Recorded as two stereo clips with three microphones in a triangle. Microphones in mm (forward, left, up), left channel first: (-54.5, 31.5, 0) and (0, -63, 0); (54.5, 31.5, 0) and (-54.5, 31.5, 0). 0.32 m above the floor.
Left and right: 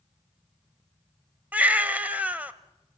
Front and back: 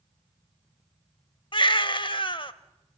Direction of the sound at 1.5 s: 10° left.